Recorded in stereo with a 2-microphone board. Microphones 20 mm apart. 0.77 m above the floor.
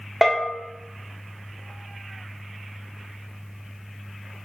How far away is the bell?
About 0.5 m.